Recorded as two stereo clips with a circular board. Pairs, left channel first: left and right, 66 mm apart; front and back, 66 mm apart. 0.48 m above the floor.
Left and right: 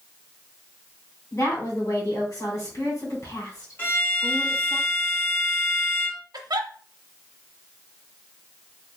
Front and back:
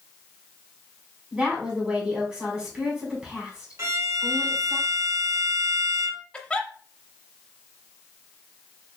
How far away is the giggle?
About 0.6 m.